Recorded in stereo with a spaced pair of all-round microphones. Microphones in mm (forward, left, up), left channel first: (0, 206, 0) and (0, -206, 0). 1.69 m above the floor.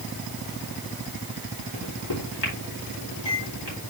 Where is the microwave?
75° left (ahead or behind), 3.5 m.